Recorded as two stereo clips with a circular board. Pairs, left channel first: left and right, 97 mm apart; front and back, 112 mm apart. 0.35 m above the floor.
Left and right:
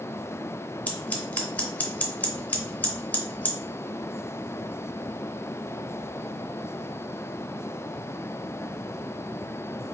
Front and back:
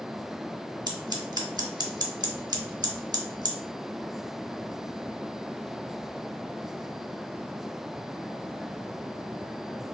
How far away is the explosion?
No explosion in this recording.